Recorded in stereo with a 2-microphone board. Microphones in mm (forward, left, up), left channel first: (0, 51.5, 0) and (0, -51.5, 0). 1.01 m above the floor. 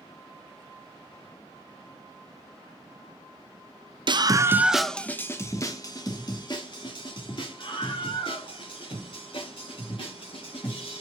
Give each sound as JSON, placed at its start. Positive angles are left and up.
{"t": 4.1, "sound": "a scream", "side_deg": -50, "distance_m": 0.7}